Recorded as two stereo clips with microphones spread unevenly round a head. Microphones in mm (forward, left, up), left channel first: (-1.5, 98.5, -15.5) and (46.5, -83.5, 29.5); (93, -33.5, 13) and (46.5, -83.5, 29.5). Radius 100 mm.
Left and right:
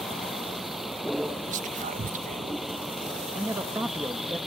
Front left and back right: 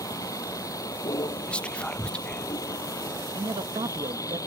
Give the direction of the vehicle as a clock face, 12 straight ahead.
12 o'clock.